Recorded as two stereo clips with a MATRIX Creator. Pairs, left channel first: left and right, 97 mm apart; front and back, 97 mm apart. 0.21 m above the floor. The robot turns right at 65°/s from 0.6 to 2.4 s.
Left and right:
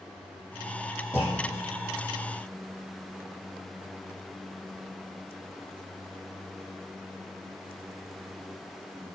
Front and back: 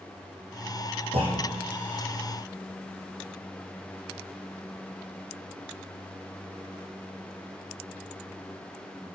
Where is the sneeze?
I don't hear a sneeze.